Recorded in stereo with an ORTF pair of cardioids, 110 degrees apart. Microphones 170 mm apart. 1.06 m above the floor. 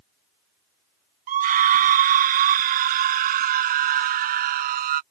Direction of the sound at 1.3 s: 60° right.